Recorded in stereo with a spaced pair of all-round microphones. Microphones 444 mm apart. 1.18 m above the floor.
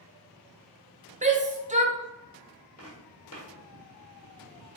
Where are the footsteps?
35° left (ahead or behind), 1.6 m.